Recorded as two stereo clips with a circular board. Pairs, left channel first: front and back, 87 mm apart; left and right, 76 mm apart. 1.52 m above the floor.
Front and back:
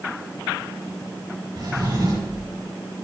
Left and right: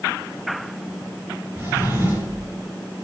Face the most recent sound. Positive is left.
turn(degrees=-150)